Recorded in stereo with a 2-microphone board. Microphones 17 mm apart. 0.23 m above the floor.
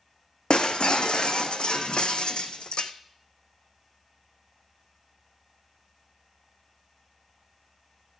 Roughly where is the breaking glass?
Left.